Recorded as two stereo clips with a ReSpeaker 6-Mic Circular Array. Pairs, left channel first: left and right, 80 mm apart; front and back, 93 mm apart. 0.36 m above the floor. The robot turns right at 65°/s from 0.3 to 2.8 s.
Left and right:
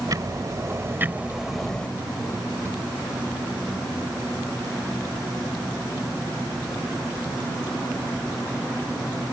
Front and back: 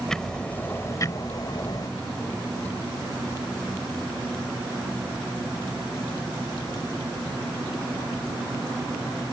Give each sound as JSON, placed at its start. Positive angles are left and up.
{"t": 0.1, "sound": "ticking", "azimuth_deg": -80}